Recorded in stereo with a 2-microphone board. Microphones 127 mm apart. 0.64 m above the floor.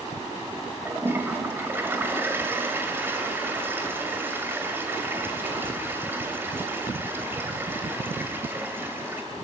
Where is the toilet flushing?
20° right (ahead or behind), 2 m.